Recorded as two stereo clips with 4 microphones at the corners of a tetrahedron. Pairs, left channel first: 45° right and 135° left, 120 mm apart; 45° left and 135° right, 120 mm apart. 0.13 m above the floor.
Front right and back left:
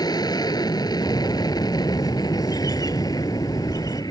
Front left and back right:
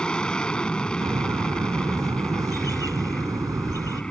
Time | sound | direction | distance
0.0 | an aircraft | 30° right | ?
1.0 | a bird | 90° right | ?